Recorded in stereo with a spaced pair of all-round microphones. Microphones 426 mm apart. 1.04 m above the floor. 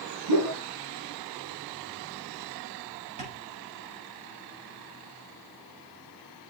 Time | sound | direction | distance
0.3 | a whoosh | 50° right (ahead or behind) | 4.5 m
3.2 | tapping | 75° right (ahead or behind) | 5 m